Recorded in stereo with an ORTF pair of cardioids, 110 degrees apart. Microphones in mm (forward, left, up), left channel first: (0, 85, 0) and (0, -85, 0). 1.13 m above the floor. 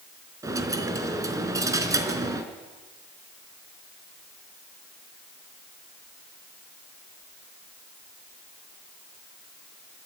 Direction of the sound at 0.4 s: 20° right.